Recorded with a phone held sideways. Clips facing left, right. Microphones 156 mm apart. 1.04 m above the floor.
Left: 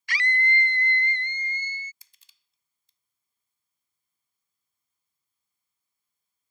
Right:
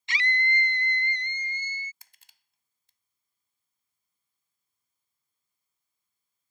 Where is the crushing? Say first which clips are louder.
Right 6 dB; 70° right (ahead or behind).